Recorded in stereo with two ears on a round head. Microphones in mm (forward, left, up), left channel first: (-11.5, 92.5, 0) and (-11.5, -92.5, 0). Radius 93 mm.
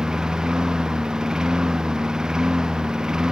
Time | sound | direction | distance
0.0 | a lawn mower | 5° right (ahead or behind) | ?